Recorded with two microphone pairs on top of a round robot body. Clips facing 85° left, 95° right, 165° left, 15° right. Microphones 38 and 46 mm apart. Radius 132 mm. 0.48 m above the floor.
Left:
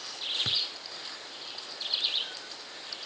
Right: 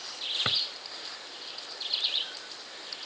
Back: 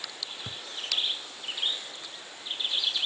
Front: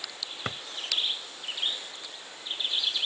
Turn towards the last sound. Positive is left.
turn(degrees=-50)